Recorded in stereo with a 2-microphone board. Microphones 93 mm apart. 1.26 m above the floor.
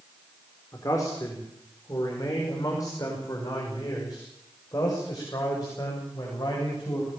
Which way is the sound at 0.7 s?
35° left (ahead or behind).